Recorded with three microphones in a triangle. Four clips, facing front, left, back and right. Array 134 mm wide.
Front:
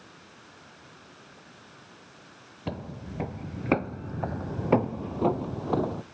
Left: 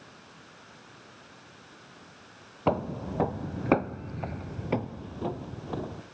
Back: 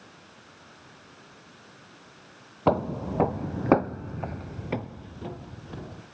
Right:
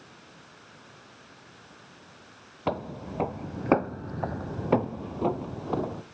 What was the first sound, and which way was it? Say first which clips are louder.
Footsteps: left 3 dB, back 13 dB; 175° left.